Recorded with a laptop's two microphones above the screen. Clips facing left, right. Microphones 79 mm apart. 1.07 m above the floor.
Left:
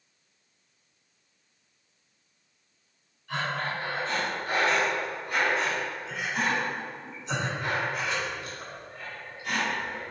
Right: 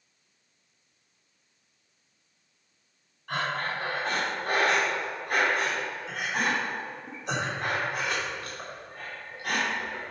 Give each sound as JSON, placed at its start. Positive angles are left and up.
{"t": 3.3, "sound": "breathing", "side_deg": -60, "distance_m": 2.5}